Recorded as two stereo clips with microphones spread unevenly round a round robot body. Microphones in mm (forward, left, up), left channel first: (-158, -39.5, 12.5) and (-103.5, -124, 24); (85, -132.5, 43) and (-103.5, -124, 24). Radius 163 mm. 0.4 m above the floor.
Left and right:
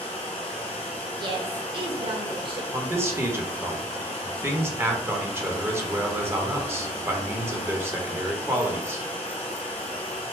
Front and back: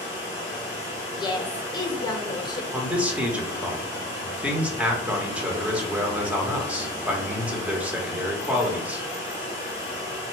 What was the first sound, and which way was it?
Running water, 95° left.